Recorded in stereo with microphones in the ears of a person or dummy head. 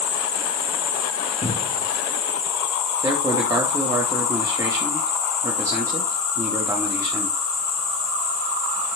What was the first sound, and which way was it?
An insect, 40° left (ahead or behind).